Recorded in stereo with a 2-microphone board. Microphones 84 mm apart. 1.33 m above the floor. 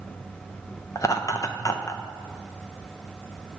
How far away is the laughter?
About 0.8 m.